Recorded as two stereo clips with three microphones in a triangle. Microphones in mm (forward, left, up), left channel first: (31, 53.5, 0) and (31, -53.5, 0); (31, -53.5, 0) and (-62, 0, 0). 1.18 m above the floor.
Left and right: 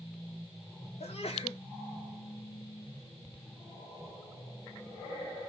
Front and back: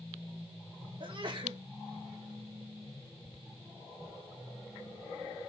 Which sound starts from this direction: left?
A sneeze, at 1.0 s.